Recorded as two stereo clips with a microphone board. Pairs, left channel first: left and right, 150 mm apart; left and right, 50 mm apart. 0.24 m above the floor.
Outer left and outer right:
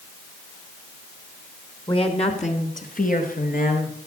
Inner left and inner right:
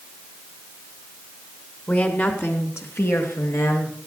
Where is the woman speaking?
35° left (ahead or behind), 2.5 m; by 4.0 s 75° left (ahead or behind), 4.5 m.